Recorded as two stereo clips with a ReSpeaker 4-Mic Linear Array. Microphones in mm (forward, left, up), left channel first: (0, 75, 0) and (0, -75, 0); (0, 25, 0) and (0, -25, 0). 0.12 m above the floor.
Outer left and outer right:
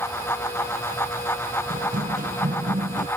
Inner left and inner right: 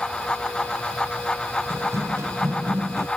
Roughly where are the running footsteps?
Right.